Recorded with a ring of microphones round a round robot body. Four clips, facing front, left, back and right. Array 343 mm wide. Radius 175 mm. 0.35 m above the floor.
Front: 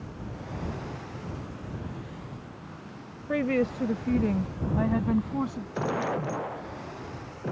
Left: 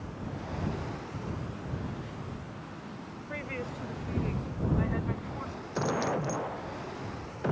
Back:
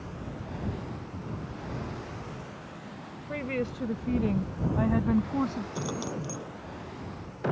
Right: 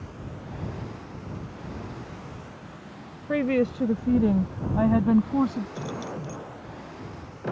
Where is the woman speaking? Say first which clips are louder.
Right 16 dB, front 6 dB; 60° right; by 5.7 s 95° right.